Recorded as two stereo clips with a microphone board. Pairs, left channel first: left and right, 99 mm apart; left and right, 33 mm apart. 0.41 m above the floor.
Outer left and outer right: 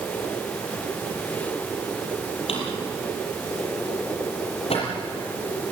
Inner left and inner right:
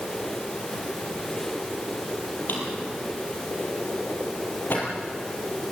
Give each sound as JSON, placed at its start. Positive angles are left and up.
{"t": 2.5, "sound": "a drawer", "side_deg": 85, "distance_m": 6.5}